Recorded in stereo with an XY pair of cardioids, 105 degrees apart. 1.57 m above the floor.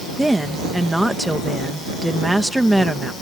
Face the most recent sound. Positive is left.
turn(degrees=-5)